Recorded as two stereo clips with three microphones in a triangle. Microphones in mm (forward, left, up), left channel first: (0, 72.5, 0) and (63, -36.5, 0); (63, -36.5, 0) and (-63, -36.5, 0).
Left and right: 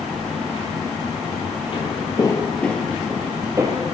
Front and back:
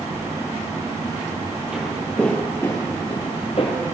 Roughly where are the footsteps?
Left.